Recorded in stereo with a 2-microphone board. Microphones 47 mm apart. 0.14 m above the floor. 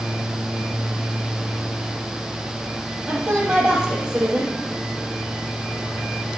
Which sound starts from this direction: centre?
A woman speaking, at 3.1 s.